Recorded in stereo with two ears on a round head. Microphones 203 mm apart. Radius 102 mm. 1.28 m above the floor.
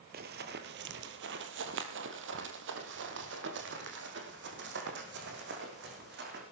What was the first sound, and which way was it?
Running footsteps, 45° right (ahead or behind).